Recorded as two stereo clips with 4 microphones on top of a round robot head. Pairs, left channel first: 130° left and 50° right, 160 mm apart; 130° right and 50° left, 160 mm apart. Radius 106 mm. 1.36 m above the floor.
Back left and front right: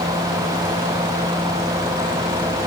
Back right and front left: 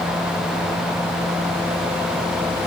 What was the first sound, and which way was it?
Only background noise.